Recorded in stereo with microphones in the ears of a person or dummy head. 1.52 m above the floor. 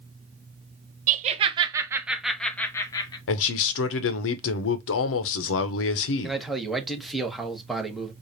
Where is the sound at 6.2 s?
Centre (ahead or behind), 1.0 m.